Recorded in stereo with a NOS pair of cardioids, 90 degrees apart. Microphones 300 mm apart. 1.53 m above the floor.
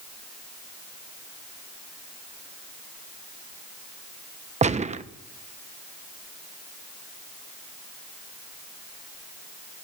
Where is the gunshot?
25° right, 1.1 m.